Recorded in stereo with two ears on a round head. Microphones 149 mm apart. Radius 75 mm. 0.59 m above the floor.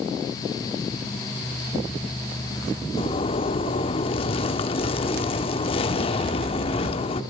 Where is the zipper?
35° left (ahead or behind), 1.0 m.